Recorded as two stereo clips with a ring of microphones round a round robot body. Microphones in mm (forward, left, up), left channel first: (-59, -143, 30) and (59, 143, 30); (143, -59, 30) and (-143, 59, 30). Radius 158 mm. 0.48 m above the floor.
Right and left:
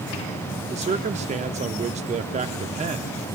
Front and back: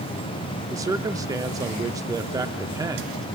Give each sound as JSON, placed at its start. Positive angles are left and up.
{"t": 0.7, "sound": "a man speaking", "azimuth_deg": 95, "distance_m": 0.7}